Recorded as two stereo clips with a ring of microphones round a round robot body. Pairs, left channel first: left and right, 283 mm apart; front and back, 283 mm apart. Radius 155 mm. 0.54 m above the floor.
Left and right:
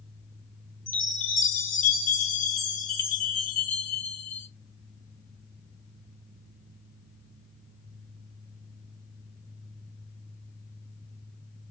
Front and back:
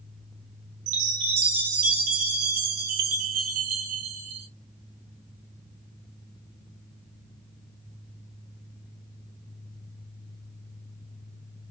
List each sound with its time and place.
0.9 s a chime: 150° left, 0.6 m